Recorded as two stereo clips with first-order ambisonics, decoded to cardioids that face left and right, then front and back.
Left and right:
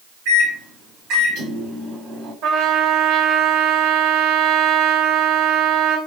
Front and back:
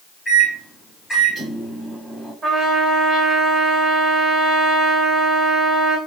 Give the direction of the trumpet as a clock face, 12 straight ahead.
4 o'clock.